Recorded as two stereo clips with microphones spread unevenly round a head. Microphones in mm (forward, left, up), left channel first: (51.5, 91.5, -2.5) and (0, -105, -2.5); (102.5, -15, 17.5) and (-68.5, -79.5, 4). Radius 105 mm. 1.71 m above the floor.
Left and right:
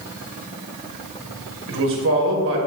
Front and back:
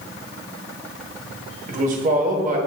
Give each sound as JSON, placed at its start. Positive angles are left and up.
{"t": 1.7, "sound": "a man speaking", "azimuth_deg": -115, "distance_m": 1.1}